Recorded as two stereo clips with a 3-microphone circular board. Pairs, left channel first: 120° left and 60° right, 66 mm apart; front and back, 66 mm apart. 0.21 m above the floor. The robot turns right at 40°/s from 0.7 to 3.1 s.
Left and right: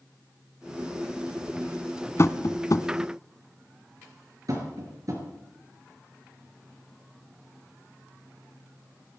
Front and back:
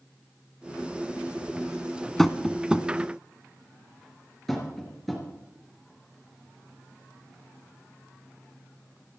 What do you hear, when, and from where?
2.2 s tapping: 85° left, 0.6 m; by 2.9 s 110° left, 0.6 m
4.5 s tapping: 85° right, 4 m